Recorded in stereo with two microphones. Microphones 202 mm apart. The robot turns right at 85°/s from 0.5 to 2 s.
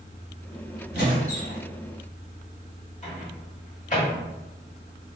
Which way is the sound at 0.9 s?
55° left.